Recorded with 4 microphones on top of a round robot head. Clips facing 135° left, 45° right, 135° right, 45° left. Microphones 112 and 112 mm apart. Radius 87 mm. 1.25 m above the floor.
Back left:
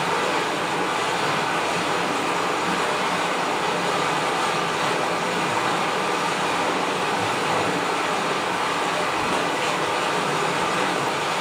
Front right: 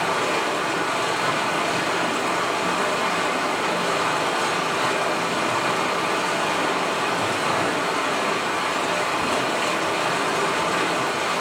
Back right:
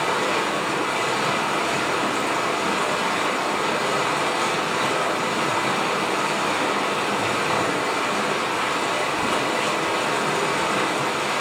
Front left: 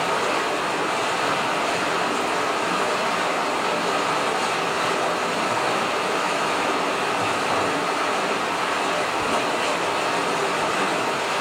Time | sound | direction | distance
0.0 | running water | 100° right | 2 m